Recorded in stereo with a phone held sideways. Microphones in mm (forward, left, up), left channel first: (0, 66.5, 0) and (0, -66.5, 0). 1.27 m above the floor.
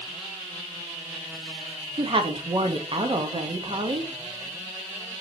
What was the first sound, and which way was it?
A woman speaking, 40° right (ahead or behind).